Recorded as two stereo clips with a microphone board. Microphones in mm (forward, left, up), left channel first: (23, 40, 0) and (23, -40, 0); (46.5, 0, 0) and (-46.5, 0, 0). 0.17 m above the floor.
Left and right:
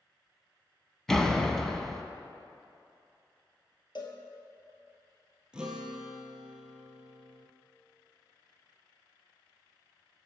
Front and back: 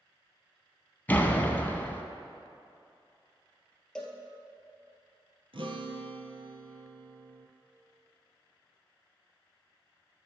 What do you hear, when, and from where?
1.1 s a door slam: 15° left, 0.8 m
4.0 s a cowbell: 80° left, 1.8 m
5.5 s a guitar: 170° right, 1.2 m